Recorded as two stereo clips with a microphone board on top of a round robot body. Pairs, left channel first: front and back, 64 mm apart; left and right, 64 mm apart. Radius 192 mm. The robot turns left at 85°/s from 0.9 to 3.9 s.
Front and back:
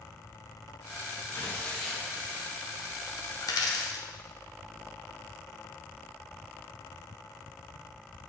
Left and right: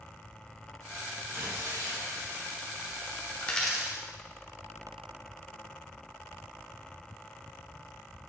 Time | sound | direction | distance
1.3 | tearing paper | 40° right | 2.5 m
3.4 | a dropped coin | 20° left | 0.6 m